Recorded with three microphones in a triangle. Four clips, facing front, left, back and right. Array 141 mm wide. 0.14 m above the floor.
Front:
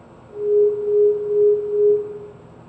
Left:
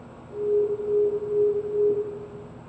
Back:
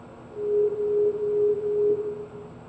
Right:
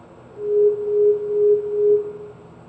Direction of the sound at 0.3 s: 140° left.